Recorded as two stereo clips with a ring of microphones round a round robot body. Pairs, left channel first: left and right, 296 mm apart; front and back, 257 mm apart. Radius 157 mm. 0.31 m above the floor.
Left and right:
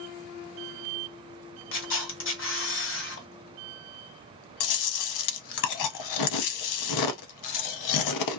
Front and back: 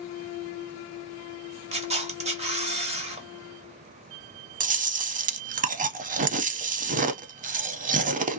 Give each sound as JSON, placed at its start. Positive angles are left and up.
{"t": 1.7, "sound": "a camera shutter", "azimuth_deg": 120, "distance_m": 1.2}
{"t": 4.6, "sound": "chewing", "azimuth_deg": 120, "distance_m": 0.5}